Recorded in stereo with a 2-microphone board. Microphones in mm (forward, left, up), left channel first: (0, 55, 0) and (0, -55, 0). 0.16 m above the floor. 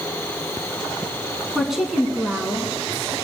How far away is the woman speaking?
About 1.4 m.